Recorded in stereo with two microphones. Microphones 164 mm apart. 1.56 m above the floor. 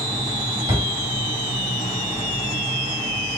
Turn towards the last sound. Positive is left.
turn(degrees=-35)  # may be behind; listen again after turning